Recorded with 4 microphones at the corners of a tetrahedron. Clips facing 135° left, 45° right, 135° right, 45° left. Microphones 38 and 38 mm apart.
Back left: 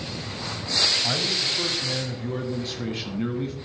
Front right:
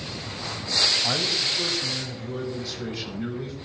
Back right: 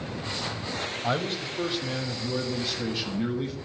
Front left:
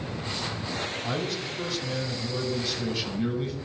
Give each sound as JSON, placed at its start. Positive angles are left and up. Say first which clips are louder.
{"t": 1.0, "sound": "a man speaking", "louder": "even, back right 2 dB", "azimuth_deg": -130, "distance_m": 1.2}